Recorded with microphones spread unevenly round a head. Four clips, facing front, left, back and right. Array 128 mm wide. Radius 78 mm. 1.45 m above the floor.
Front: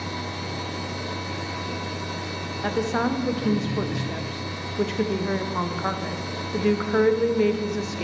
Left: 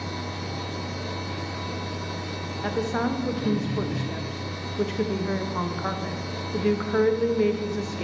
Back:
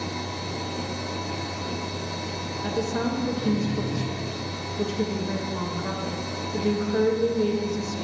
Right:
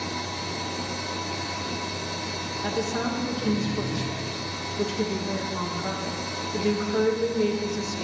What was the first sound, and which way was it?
A machine running, 15° left.